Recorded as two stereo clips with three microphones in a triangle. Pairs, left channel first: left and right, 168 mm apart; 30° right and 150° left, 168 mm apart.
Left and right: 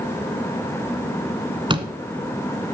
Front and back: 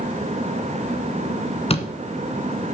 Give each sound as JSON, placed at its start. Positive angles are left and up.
{"t": 1.7, "sound": "a door slam", "azimuth_deg": -50, "distance_m": 1.4}